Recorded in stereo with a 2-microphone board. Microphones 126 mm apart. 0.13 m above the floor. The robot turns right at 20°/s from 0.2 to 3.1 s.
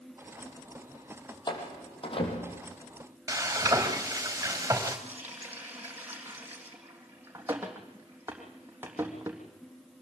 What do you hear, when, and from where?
1.5 s a door slam: 35° left (ahead or behind), 4 m; by 2.6 s 60° left (ahead or behind), 4 m
3.3 s frying: 20° right (ahead or behind), 4.5 m
5.1 s a running tap: 15° right (ahead or behind), 3.5 m